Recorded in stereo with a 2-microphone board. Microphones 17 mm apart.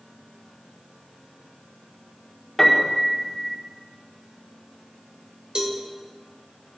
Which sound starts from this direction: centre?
A piano, at 2.6 s.